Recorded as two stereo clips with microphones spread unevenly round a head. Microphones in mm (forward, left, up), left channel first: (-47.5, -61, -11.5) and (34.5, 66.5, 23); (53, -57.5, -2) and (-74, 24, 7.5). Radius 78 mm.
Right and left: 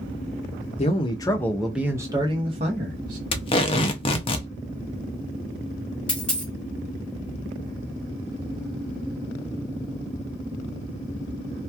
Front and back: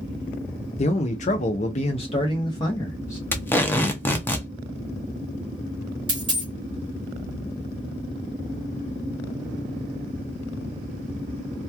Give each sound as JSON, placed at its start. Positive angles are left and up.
{"t": 0.8, "sound": "a man speaking", "azimuth_deg": -70, "distance_m": 0.7}
{"t": 3.3, "sound": "tape being pulled", "azimuth_deg": -95, "distance_m": 0.5}
{"t": 6.1, "sound": "a dropped coin", "azimuth_deg": 135, "distance_m": 1.2}